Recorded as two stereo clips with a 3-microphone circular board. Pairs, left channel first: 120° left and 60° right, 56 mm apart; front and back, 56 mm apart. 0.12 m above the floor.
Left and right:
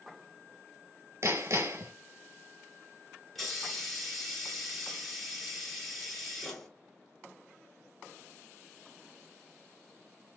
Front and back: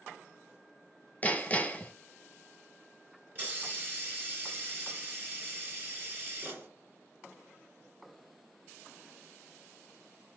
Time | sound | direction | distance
1.2 | hammering | 60° right | 0.6 m
3.4 | a hiss | 155° right | 1.1 m